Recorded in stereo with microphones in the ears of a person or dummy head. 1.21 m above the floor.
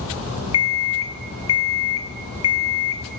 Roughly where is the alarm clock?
Left.